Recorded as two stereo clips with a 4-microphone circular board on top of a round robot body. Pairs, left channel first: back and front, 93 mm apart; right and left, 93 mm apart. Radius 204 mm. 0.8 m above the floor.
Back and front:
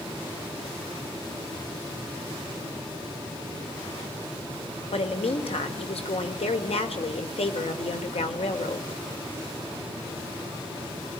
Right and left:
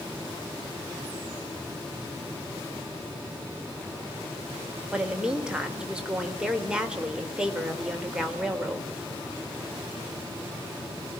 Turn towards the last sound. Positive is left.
turn(degrees=170)